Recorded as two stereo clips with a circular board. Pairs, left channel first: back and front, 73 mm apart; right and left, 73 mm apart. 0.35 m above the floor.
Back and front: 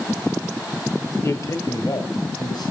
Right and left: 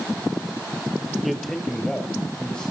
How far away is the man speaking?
About 1.0 m.